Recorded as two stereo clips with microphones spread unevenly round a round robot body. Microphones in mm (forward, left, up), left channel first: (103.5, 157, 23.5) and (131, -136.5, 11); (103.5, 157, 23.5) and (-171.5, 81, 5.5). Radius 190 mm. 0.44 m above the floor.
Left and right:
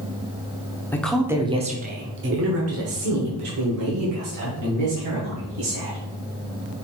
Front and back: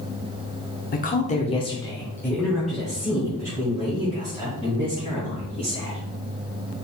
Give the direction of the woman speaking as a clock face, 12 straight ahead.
11 o'clock.